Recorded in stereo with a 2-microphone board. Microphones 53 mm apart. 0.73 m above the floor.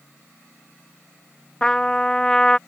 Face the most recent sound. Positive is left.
turn(degrees=15)  # may be behind; listen again after turning